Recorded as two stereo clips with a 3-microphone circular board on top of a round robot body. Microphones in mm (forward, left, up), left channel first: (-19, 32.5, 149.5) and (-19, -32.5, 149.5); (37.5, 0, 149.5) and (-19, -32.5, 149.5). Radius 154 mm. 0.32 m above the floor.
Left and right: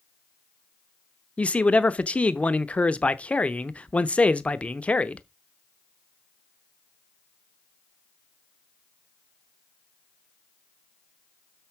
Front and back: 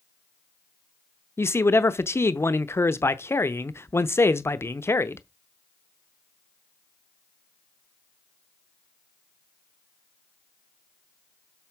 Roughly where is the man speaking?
Ahead left.